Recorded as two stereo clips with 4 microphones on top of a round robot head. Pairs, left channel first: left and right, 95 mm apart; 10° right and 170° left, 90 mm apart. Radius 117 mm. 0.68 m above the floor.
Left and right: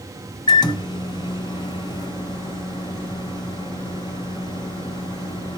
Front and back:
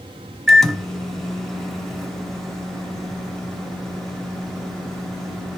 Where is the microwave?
80° left, 1.0 m.